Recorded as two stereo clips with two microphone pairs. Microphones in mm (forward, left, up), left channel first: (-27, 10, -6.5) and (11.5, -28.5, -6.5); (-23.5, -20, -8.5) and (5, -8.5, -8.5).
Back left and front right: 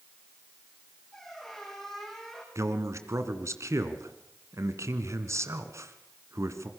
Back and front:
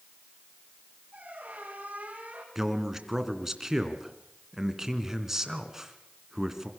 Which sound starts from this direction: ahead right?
A man speaking, at 2.5 s.